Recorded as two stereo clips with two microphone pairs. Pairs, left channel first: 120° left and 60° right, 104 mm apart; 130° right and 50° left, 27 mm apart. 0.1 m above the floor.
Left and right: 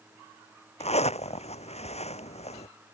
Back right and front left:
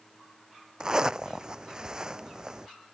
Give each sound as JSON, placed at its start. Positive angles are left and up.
{"t": 0.8, "sound": "a zipper", "azimuth_deg": 115}